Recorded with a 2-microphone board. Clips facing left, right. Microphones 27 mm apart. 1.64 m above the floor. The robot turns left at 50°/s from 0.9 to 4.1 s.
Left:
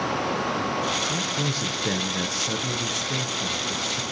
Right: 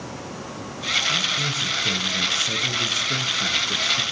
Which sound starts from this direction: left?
A man speaking, at 1.1 s.